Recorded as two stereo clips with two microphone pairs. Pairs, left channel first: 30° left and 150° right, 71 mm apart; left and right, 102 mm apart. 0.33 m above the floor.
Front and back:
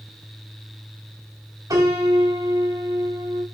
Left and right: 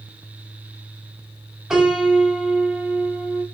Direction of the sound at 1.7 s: 170° right.